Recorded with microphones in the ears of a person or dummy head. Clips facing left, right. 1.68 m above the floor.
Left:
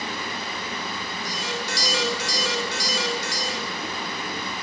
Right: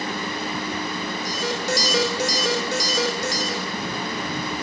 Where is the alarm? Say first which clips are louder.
Right 5 dB; 40° right (ahead or behind), 7 m.